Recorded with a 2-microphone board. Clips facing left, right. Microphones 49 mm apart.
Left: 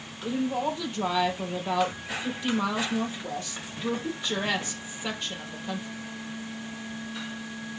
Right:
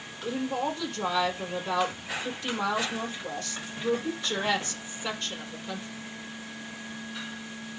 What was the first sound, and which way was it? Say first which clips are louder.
A woman speaking: left 2 dB; 15° left (ahead or behind).